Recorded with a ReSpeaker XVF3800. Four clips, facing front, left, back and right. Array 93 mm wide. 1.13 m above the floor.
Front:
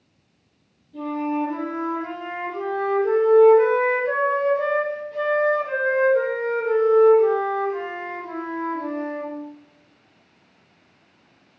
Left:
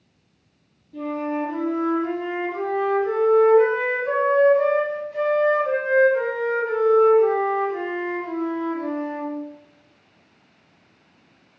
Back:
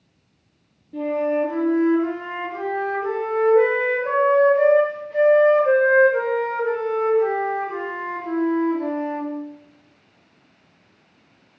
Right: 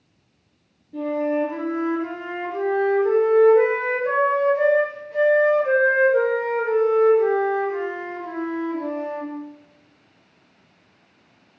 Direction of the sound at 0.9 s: 150° right.